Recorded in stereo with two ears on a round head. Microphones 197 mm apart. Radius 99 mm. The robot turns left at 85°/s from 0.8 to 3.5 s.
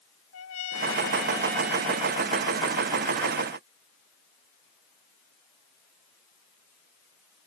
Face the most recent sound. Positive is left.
turn(degrees=-160)